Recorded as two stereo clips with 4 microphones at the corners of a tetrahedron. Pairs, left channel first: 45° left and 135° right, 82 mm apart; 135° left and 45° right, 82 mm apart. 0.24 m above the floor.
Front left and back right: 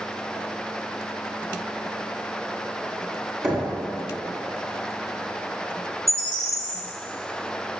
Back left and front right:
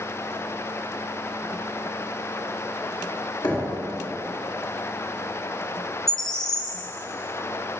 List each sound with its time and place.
3.4 s knocking: 140° left, 2.5 m
6.1 s a bird: 150° right, 1.6 m